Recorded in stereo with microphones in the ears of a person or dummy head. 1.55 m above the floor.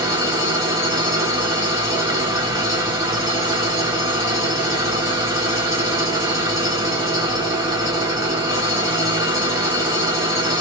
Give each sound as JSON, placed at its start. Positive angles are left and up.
{"t": 0.0, "sound": "an engine running", "side_deg": -20, "distance_m": 0.9}